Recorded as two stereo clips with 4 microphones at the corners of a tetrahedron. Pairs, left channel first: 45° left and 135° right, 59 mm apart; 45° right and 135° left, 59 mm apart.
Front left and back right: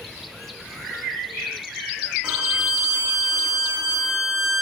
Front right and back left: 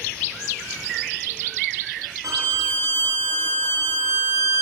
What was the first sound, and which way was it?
A violin, 155° left.